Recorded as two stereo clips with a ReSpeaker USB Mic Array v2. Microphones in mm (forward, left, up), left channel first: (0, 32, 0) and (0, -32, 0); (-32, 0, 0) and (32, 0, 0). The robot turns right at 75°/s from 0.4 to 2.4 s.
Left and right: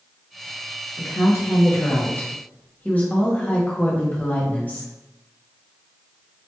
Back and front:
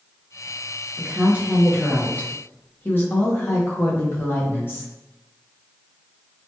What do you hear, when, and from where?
1.0 s a woman speaking: 40° left, 0.8 m; by 4.9 s 145° left, 0.8 m